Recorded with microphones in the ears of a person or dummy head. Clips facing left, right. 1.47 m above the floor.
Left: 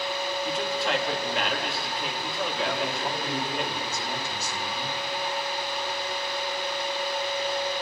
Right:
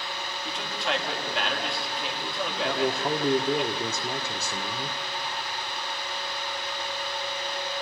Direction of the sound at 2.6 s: 60° right (ahead or behind).